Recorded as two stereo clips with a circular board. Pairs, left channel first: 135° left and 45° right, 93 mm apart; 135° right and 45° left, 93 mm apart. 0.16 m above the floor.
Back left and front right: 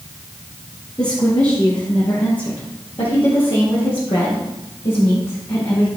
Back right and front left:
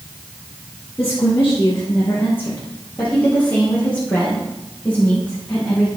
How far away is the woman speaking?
About 2.5 m.